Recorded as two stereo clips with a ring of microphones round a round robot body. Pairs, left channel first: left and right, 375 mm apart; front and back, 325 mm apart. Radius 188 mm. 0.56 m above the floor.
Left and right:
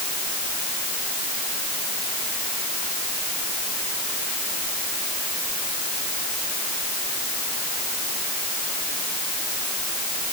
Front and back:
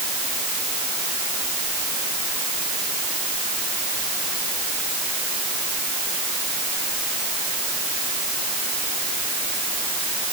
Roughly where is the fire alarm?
No fire alarm in this recording.